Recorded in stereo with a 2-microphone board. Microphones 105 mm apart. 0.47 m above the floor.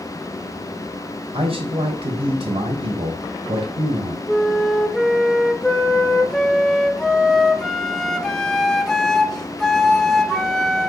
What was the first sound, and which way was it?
A man speaking, 60° right (ahead or behind).